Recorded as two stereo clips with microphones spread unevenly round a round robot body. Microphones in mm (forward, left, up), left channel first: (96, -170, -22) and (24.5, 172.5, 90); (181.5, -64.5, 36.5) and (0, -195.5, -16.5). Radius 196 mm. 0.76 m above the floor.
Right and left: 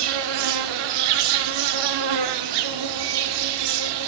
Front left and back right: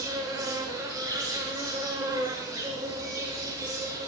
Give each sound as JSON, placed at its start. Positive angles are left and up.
{"t": 0.0, "sound": "an insect", "azimuth_deg": 130, "distance_m": 0.9}